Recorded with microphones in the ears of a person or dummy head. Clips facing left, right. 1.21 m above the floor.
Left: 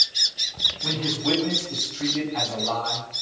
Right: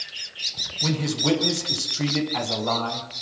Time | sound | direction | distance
0.8 | a man speaking | 70° right (ahead or behind) | 9 m